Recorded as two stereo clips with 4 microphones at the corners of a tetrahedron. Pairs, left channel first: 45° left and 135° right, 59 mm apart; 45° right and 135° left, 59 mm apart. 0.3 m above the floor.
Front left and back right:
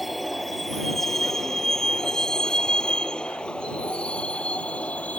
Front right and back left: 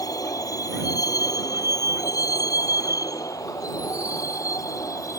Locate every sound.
0.0 s a vehicle: 45° right; by 5.2 s 25° right